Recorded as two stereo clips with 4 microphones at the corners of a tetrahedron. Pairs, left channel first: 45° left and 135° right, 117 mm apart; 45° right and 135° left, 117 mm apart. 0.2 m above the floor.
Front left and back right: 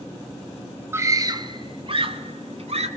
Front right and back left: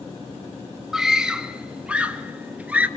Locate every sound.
0.9 s a scream: 145° right, 1.0 m; by 2.9 s 150° right, 1.9 m